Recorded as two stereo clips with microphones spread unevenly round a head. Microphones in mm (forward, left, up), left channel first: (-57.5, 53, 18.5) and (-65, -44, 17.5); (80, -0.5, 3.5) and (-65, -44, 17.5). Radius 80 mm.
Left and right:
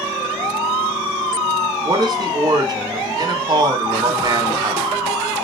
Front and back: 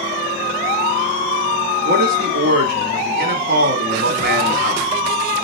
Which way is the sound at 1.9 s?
140° right.